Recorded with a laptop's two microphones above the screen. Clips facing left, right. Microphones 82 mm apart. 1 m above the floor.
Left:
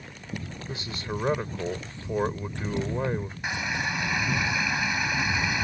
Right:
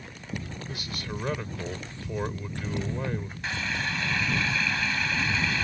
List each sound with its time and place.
0.7 s a man speaking: 25° left (ahead or behind)
3.4 s a running tap: 15° left (ahead or behind)